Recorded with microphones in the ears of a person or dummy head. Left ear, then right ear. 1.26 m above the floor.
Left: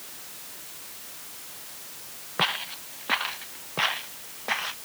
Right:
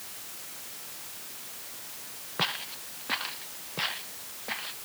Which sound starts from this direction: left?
Footsteps, at 2.4 s.